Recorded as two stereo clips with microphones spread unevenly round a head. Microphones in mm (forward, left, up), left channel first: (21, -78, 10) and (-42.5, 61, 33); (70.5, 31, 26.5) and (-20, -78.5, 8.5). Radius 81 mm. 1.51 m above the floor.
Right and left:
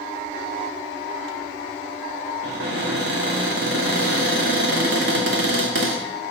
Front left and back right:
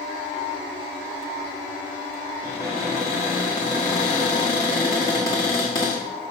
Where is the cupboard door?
120° left, 2.0 m.